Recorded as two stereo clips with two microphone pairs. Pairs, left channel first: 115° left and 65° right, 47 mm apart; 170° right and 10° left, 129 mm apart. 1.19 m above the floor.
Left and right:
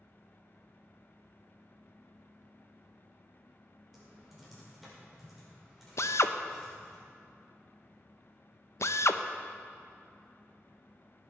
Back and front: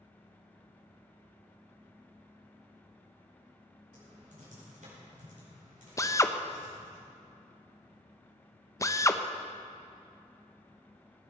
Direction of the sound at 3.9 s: 25° left.